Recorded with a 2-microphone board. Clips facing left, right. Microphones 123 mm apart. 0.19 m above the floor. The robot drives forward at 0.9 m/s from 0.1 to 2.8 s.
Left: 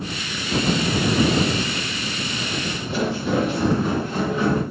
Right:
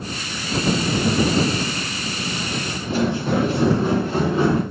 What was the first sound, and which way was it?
Footsteps, 50° right (ahead or behind).